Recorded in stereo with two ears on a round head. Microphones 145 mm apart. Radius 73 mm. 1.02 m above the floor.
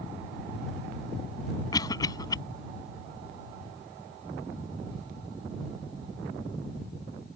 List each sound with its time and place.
1.7 s a cough: 20° left (ahead or behind)